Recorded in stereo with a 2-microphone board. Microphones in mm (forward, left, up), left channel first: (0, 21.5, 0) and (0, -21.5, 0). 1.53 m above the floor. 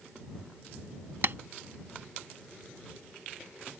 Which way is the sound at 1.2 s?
55° right (ahead or behind).